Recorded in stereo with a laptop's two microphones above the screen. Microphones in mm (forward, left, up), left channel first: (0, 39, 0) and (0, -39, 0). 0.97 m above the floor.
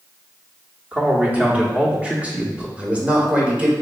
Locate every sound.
0.9 s a man speaking: 15° right (ahead or behind), 1.2 m
2.8 s a man speaking: 15° right (ahead or behind), 1.6 m